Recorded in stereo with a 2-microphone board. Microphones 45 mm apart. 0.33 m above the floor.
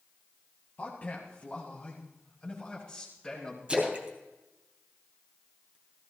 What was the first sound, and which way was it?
A man speaking, 35° left (ahead or behind).